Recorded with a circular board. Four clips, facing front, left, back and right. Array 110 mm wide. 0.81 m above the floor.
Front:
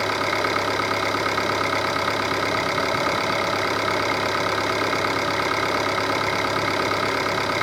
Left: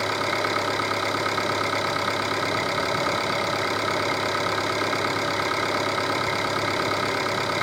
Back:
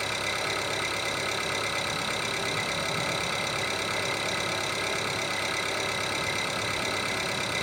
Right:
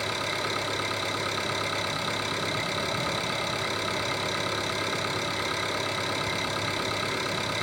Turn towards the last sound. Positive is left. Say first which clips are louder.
# left 6 dB, front 9 dB
turn(degrees=25)